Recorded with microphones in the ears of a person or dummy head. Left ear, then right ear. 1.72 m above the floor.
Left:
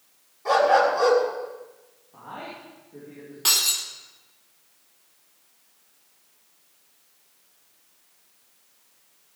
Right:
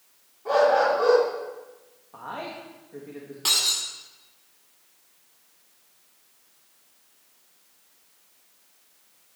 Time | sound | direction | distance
0.5 | a dog barking | 70° left (ahead or behind) | 5 m
2.1 | a man speaking | 50° right (ahead or behind) | 2.5 m
3.5 | breaking glass | 10° left (ahead or behind) | 2 m